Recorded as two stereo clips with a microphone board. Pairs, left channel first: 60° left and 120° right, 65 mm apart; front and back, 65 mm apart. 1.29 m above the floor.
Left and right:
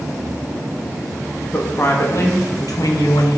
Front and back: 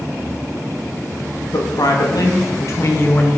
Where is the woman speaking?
10° left, 1.5 m; by 3.4 s 65° left, 1.1 m.